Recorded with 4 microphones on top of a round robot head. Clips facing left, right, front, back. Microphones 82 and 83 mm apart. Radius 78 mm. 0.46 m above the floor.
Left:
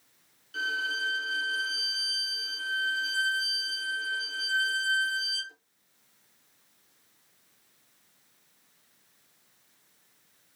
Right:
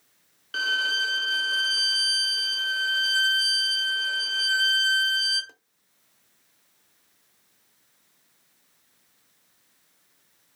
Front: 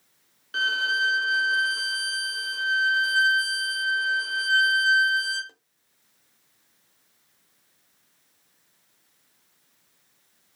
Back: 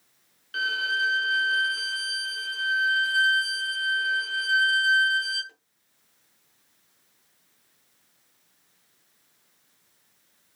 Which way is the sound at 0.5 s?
65° right.